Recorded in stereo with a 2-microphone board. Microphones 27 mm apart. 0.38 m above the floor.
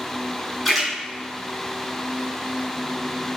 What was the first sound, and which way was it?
A splash, centre (ahead or behind).